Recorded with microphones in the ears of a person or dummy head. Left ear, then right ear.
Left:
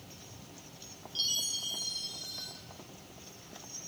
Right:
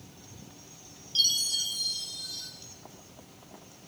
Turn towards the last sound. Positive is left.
turn(degrees=-40)  # may be behind; listen again after turning